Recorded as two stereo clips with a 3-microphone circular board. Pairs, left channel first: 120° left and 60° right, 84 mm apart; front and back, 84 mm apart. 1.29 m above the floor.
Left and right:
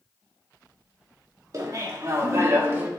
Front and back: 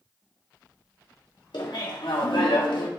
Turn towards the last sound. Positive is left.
turn(degrees=5)